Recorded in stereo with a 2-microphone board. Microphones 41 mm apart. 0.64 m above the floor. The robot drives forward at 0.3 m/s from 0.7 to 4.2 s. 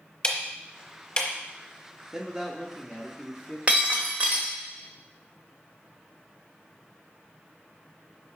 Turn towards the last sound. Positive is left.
turn(degrees=-35)  # may be behind; listen again after turning